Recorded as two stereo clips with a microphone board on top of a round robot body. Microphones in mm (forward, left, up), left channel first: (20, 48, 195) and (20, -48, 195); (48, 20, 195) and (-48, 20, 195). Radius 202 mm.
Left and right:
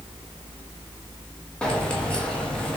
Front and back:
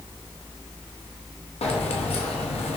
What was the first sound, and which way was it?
Keys jangling, 10° left.